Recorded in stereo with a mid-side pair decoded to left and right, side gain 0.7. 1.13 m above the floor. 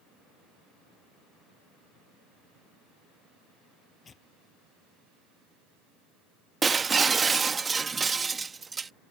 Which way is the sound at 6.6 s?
20° right.